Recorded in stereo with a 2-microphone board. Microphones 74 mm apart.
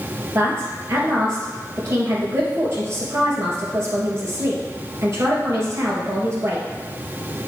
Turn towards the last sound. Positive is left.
turn(degrees=-40)  # may be behind; listen again after turning